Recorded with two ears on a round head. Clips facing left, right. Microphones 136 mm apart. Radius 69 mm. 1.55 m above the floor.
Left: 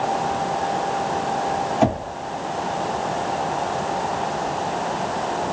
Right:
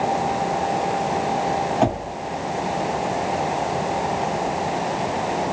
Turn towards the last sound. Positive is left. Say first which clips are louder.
# left 4 dB
turn(degrees=5)  # may be behind; listen again after turning